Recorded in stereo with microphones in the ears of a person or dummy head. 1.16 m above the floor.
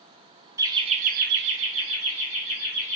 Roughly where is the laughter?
Centre.